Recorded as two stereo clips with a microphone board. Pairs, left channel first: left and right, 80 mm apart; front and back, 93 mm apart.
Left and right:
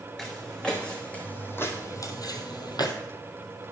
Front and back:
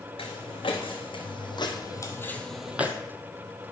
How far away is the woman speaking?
No woman speaking in this recording.